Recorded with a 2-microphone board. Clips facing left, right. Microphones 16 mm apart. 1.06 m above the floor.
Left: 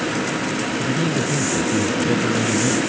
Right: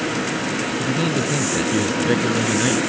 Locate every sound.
0.8 s a man speaking: 25° right (ahead or behind)